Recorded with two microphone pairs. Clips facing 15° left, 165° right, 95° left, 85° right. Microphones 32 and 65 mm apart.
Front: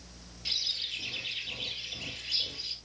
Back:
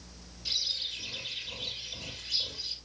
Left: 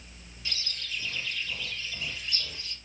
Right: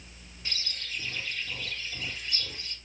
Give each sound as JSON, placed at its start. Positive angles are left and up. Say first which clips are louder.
{"t": 0.5, "sound": "a bird", "louder": "even, even", "azimuth_deg": -25, "distance_m": 3.0}